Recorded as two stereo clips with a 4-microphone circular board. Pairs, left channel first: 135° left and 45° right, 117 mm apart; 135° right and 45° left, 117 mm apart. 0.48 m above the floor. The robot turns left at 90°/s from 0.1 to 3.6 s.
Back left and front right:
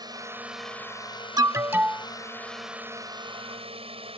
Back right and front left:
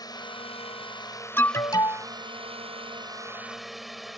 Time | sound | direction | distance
0.0 | a drone | 90° right | ?
1.4 | an alarm | 75° right | ?